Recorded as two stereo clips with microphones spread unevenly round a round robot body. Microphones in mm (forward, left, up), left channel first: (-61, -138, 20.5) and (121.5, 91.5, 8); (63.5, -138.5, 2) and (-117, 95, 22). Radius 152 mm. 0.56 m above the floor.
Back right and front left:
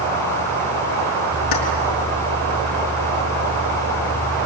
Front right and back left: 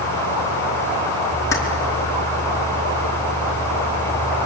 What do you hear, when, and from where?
1.5 s keys jangling: 135° right, 4.5 m